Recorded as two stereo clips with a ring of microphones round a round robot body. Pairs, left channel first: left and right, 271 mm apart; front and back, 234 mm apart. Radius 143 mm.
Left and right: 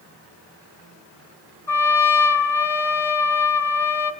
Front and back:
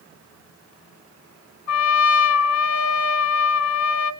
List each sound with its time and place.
1.7 s a trumpet: 10° left, 1.7 m